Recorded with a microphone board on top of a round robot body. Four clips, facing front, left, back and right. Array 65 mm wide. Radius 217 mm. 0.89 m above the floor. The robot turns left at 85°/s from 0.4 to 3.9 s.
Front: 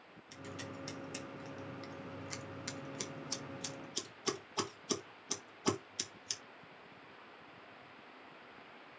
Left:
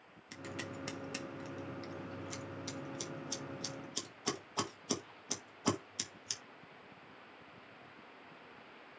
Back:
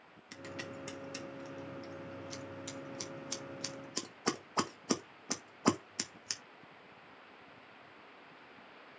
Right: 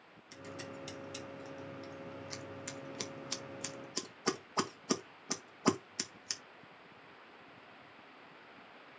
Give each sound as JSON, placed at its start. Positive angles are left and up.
{"t": 0.3, "sound": "scissors", "azimuth_deg": 145, "distance_m": 2.5}